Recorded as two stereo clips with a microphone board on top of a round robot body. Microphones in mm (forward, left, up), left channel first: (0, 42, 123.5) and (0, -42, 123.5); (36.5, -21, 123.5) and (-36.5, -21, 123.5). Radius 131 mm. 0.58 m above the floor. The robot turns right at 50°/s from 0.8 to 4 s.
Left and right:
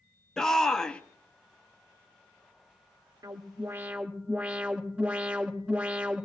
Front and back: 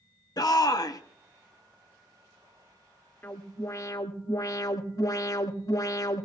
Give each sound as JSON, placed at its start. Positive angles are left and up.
{"t": 0.4, "sound": "a shout", "azimuth_deg": 10, "distance_m": 1.1}
{"t": 3.2, "sound": "an alarm", "azimuth_deg": -55, "distance_m": 2.0}